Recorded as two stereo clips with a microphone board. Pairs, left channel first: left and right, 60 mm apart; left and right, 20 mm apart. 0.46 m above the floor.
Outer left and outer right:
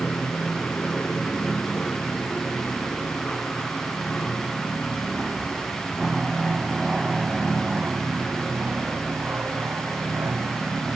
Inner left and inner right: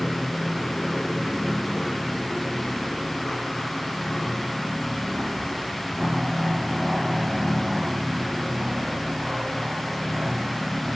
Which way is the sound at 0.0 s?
15° left (ahead or behind).